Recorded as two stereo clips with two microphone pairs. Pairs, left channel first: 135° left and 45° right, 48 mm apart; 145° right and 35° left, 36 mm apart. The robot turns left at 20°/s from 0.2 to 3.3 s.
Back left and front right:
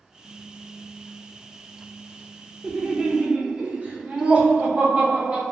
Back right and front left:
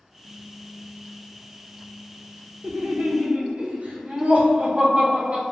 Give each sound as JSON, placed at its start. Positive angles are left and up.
{"t": 2.6, "sound": "laughter", "azimuth_deg": 20, "distance_m": 0.7}